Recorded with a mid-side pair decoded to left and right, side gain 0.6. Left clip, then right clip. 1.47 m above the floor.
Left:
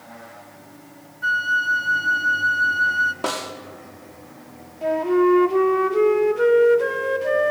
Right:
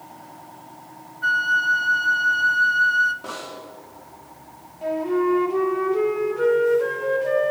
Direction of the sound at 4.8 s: 25° left.